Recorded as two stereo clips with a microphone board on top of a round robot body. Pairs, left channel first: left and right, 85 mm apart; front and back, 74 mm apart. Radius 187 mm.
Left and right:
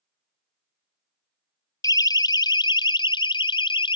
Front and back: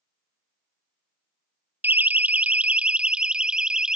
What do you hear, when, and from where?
1.8 s a siren: 120° left; by 4.0 s 100° left